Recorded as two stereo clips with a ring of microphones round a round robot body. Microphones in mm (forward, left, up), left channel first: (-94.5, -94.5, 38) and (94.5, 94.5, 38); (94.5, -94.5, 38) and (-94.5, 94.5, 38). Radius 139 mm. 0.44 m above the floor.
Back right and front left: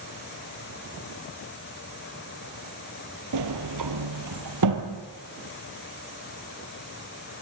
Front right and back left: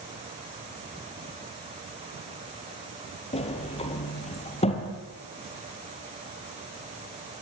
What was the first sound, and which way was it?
A sliding door, 25° left.